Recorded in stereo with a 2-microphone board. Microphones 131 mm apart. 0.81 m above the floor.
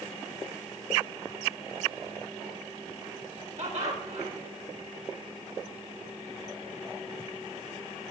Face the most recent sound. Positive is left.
turn(degrees=-70)  # may be behind; listen again after turning